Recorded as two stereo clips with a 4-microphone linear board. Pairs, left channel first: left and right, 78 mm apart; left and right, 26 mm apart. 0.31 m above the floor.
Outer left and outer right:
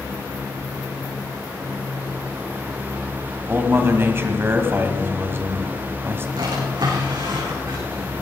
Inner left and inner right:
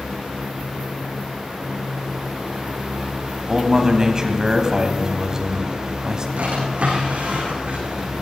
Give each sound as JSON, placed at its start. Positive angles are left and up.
{"t": 3.5, "sound": "a man speaking", "side_deg": -30, "distance_m": 2.0}
{"t": 6.4, "sound": "a drawer", "side_deg": -80, "distance_m": 8.0}